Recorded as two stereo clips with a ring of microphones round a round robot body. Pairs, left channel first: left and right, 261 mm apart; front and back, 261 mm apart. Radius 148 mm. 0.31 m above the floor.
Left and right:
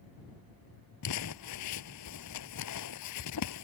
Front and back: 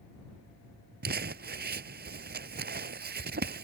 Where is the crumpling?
125° left.